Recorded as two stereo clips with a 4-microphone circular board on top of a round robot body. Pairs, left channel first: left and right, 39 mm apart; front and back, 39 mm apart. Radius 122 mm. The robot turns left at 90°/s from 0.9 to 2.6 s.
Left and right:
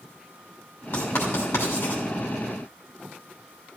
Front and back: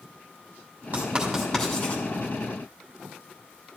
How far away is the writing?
About 2.5 m.